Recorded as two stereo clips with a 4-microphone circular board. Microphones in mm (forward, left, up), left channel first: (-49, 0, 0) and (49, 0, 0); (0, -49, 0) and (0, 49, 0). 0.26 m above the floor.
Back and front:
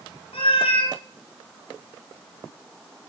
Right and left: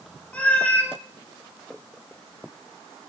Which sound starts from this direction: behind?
A cat meowing, at 0.3 s.